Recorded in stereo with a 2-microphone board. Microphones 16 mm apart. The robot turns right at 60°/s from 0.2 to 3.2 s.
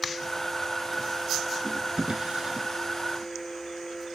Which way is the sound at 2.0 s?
70° right (ahead or behind).